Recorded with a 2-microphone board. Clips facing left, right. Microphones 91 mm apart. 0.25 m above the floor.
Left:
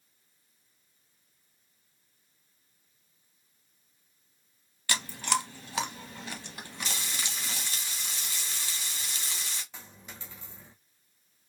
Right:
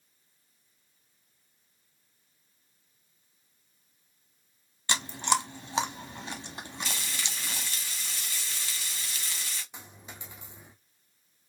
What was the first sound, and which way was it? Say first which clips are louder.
Chewing: right 2 dB; 25° right (ahead or behind).